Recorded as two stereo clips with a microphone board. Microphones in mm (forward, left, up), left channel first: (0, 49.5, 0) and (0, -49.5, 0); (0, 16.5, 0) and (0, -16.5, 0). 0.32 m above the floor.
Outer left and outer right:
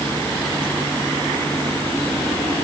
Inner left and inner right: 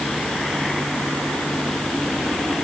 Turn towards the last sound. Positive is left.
No sound to turn to.